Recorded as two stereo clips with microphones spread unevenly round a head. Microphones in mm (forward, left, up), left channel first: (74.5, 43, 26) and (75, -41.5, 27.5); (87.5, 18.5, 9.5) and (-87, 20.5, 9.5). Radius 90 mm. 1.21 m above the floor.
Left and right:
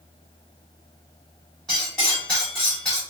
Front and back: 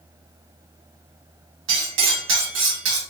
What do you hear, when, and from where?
1.7 s cutlery clinking: 175° left, 1.0 m